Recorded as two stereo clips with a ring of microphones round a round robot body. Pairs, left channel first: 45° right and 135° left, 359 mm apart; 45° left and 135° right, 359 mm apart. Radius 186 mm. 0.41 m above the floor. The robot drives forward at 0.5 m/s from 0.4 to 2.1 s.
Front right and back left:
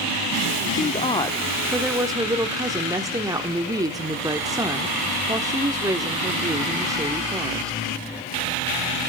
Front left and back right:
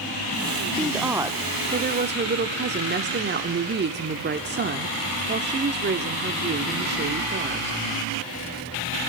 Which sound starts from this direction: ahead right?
A woman speaking, at 0.8 s.